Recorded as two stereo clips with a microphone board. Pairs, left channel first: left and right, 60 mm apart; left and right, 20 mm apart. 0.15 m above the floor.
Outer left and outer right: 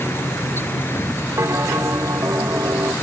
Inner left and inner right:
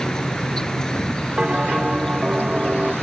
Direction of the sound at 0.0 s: 40° left (ahead or behind).